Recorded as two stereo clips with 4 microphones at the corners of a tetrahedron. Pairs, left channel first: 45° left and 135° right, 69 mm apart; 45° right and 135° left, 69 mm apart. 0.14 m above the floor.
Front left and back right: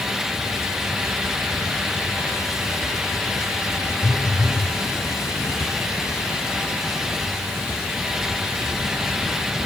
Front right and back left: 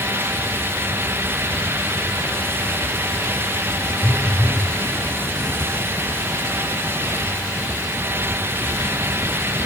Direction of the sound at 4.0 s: 35° left.